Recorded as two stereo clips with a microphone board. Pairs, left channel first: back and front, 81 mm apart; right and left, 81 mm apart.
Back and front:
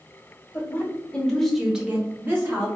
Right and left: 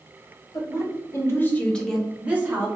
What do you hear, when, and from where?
0.5 s a woman speaking: 115° right, 1.4 m; by 2.7 s 45° left, 1.1 m